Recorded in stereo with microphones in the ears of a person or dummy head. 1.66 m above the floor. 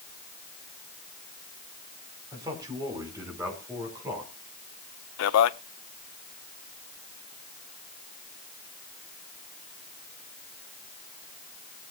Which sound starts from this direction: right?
A man speaking, at 2.3 s.